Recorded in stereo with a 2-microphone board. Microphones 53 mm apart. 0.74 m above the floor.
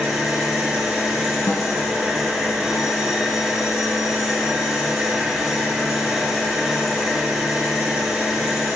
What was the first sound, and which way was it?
An engine running, 5° right (ahead or behind).